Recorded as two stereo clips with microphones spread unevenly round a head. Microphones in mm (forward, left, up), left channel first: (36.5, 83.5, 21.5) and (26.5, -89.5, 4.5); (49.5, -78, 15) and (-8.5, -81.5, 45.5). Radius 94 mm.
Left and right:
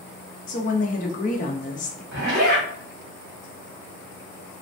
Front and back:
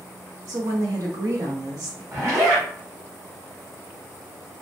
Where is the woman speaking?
130° left, 0.6 m.